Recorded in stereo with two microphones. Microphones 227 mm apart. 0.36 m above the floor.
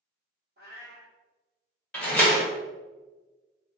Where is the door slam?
5° left (ahead or behind), 1.0 m.